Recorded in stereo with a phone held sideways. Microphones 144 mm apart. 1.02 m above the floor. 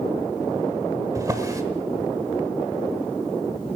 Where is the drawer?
25° right (ahead or behind), 1.3 m.